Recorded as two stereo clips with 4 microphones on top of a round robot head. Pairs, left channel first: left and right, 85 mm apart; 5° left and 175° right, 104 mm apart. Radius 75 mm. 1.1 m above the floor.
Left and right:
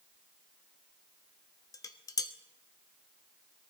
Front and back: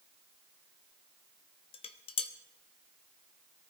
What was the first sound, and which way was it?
Dishes clattering, 40° left.